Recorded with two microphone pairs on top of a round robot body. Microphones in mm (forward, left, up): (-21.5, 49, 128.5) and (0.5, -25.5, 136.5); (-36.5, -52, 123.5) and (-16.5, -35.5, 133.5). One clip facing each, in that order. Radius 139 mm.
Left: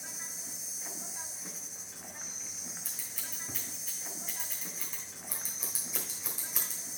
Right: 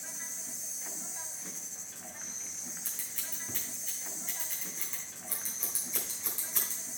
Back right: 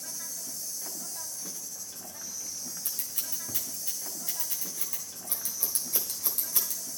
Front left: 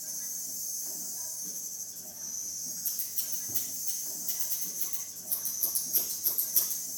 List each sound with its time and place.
0.0 s an insect: 170° right, 0.8 m
2.9 s scissors: 165° right, 1.4 m